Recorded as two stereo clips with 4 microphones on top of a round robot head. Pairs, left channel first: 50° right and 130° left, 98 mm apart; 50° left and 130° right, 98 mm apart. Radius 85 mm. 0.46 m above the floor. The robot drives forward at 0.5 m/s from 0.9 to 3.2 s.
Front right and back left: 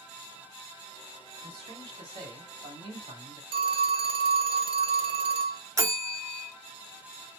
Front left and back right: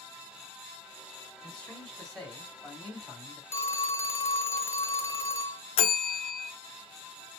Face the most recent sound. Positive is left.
turn(degrees=75)